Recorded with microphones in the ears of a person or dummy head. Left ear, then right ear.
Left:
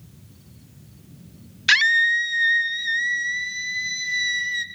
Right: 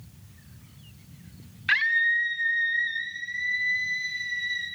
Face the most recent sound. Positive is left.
turn(degrees=80)